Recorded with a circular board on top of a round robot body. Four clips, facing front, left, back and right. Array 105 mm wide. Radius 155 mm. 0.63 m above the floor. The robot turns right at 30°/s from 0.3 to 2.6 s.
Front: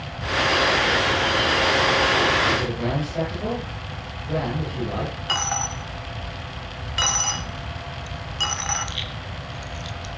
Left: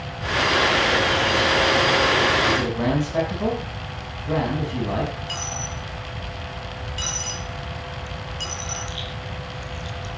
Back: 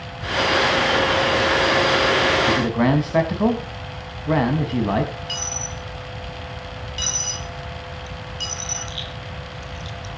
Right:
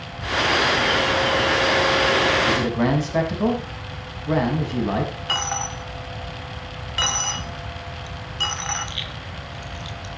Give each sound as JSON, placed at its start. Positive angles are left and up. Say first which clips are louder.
{"t": 2.5, "sound": "a man speaking", "louder": "right 1 dB, back 5 dB", "azimuth_deg": -170, "distance_m": 5.5}
{"t": 5.3, "sound": "a dropped coin", "louder": "right 5 dB, front 5 dB", "azimuth_deg": -40, "distance_m": 1.0}